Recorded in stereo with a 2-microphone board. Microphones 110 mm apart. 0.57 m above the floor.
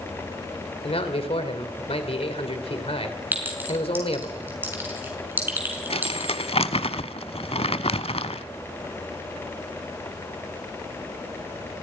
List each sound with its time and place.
0.8 s a man speaking: 65° left (ahead or behind), 2.5 m
3.3 s a clink: 20° right (ahead or behind), 5 m
5.9 s crumpling: 65° left (ahead or behind), 1.0 m